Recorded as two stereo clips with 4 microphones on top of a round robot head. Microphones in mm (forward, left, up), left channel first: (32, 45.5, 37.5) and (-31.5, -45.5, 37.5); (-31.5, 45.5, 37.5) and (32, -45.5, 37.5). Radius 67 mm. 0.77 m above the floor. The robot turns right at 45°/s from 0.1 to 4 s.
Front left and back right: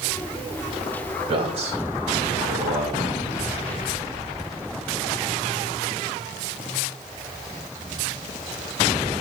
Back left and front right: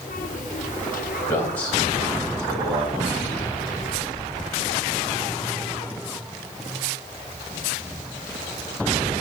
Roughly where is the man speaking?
Behind.